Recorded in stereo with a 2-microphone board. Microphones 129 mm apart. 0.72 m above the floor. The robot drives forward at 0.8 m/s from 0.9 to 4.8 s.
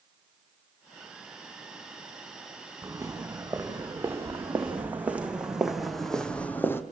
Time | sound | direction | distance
2.8 | footsteps | 20° right (ahead or behind) | 5 m